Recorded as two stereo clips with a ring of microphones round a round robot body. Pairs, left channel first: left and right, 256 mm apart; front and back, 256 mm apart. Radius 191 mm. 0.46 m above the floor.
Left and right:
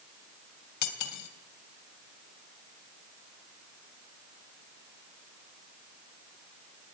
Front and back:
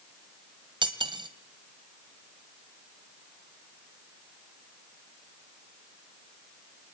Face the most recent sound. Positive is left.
turn(degrees=105)